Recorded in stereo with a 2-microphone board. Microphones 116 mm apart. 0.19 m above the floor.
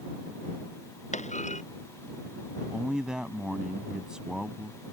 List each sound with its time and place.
1.1 s a clunk: 90° left
2.7 s a man speaking: 5° right (ahead or behind)